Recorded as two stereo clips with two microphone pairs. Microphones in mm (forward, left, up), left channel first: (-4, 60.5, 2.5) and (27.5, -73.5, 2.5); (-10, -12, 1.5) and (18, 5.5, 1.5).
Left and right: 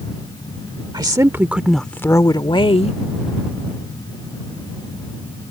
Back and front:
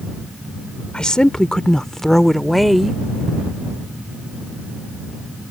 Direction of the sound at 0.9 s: 110° right.